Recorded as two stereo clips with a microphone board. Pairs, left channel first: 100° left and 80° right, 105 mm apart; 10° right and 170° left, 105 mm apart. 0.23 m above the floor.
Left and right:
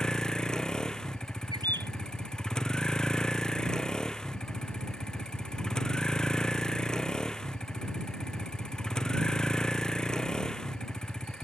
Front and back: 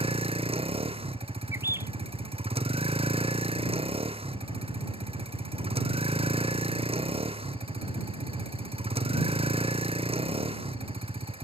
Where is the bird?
125° right.